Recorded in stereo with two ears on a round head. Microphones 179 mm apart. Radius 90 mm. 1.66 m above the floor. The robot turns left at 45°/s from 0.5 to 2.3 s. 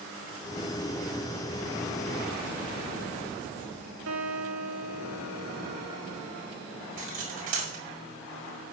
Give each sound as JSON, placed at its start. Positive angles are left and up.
{"t": 4.1, "sound": "a guitar", "side_deg": -70, "distance_m": 2.5}
{"t": 7.0, "sound": "cutlery clinking", "side_deg": -40, "distance_m": 4.5}